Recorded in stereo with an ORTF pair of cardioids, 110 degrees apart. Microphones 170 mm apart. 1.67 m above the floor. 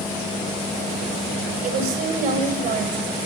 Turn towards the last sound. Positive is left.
turn(degrees=-55)